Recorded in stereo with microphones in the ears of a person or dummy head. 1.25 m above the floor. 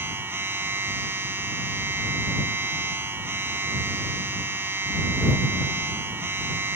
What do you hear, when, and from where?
0.0 s a machine running: 10° right (ahead or behind)